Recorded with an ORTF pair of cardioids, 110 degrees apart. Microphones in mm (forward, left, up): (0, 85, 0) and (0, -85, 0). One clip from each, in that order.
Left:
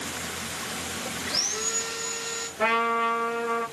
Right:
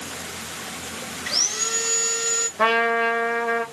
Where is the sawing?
70° right, 1.3 m.